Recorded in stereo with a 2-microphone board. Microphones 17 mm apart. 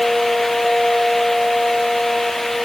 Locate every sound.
Only background noise.